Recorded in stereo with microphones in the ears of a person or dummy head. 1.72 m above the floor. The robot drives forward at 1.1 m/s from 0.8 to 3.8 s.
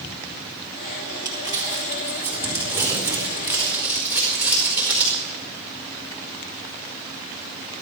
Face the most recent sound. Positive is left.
turn(degrees=-10)  # may be behind; listen again after turning